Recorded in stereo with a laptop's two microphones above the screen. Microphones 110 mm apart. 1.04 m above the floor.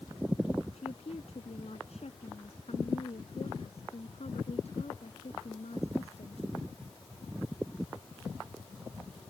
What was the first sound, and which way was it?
A woman speaking, 70° left (ahead or behind).